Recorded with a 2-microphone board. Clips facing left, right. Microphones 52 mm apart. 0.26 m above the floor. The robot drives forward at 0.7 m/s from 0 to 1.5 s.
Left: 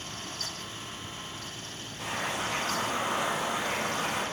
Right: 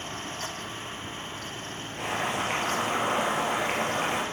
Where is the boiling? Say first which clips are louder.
Right 3 dB; 80° right, 7.5 m.